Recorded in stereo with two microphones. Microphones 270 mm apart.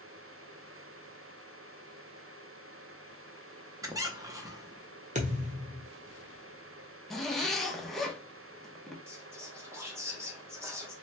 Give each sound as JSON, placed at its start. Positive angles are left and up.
{"t": 3.8, "sound": "a squeak", "side_deg": -15, "distance_m": 0.6}
{"t": 5.2, "sound": "a thud", "side_deg": -25, "distance_m": 0.8}
{"t": 7.1, "sound": "a zipper", "side_deg": 0, "distance_m": 0.6}
{"t": 9.1, "sound": "whispering", "side_deg": -10, "distance_m": 1.0}